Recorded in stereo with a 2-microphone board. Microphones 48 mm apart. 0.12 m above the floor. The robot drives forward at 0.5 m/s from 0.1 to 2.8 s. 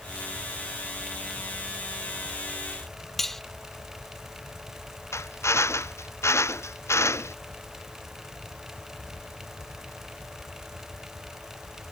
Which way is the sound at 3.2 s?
5° left (ahead or behind).